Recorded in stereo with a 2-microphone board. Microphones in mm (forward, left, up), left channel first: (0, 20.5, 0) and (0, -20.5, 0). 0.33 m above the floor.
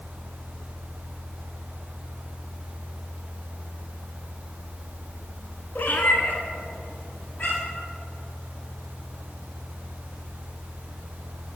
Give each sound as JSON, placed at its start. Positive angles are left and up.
{"t": 5.8, "sound": "a cat meowing", "side_deg": 60, "distance_m": 0.5}